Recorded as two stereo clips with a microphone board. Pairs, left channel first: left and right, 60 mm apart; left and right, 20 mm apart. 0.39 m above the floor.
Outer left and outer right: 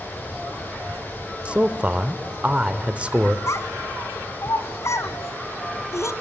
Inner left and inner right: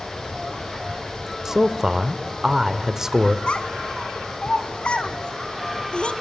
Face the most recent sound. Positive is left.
turn(degrees=60)  # may be behind; listen again after turning